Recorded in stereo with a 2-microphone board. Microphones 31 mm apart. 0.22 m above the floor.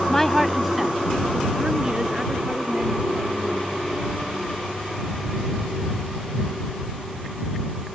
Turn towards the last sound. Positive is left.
turn(degrees=-30)  # may be behind; listen again after turning